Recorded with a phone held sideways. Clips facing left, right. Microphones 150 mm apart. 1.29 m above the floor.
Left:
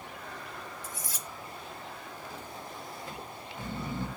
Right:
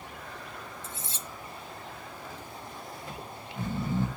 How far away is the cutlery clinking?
About 0.6 m.